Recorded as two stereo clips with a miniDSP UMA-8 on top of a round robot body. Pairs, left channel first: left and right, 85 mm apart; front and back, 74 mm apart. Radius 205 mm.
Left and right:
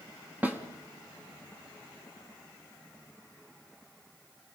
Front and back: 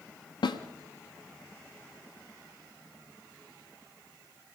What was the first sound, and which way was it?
A snare drum, 20° right.